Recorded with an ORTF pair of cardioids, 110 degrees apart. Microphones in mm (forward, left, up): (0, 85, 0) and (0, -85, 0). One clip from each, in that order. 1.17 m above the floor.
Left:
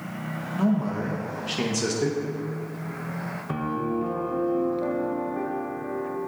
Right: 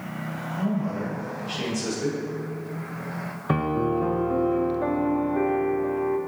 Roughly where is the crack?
I don't hear a crack.